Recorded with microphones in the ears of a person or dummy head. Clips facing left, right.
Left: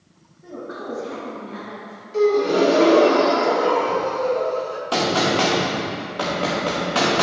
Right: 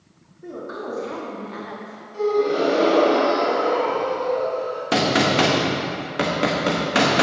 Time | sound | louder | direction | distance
0.4 | a woman speaking | right 1 dB | 45° right (ahead or behind) | 2.0 m
2.1 | a gasp | left 3 dB | 75° left (ahead or behind) | 0.9 m
4.9 | a gunshot | right 1 dB | 25° right (ahead or behind) | 0.7 m